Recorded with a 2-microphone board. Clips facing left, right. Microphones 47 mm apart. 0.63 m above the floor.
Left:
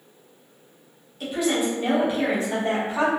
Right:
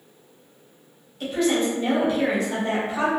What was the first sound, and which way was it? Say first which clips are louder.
A woman speaking: right 2 dB; 5° left (ahead or behind).